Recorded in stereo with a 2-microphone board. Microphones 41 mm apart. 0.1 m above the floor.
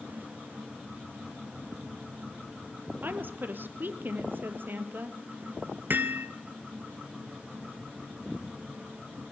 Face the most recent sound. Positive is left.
turn(degrees=-50)  # may be behind; listen again after turning